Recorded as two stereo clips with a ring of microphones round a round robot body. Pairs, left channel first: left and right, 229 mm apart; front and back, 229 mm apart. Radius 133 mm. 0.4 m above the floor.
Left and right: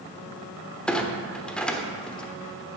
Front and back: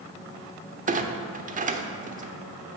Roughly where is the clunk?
Behind.